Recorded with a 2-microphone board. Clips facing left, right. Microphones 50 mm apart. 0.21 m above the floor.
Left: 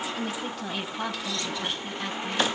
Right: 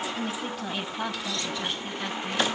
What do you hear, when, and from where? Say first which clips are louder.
0.2 s a woman speaking: even; 5° right (ahead or behind), 1.4 m